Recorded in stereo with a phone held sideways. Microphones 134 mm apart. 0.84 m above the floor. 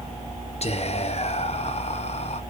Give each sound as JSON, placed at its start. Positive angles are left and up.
{"t": 0.6, "sound": "whispering", "side_deg": 50, "distance_m": 0.6}